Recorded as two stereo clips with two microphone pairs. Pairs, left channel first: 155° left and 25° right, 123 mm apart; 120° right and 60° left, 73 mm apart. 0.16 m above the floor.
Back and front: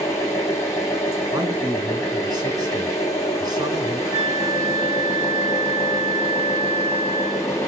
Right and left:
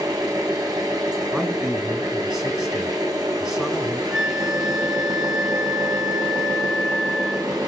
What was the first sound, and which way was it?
An engine running, 90° left.